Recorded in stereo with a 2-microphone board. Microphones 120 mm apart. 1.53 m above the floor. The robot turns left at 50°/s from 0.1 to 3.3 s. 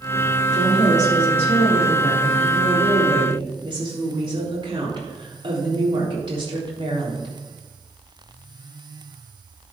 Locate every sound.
0.5 s a woman speaking: 95° left, 3.5 m; by 7.3 s 45° right, 3.5 m